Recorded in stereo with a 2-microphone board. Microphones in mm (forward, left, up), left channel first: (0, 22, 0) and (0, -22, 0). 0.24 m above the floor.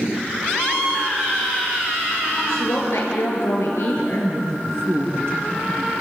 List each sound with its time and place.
2.5 s a woman speaking: 75° left (ahead or behind), 5.5 m
4.0 s a man speaking: 70° right (ahead or behind), 5 m